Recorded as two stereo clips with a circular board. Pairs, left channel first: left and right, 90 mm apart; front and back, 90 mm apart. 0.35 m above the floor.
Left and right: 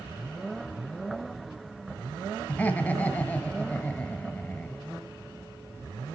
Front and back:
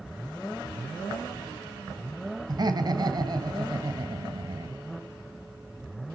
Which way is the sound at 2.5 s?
160° left.